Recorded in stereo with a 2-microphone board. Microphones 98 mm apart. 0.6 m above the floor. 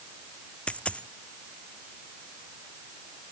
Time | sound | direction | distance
0.7 | a dropped coin | 10° left (ahead or behind) | ?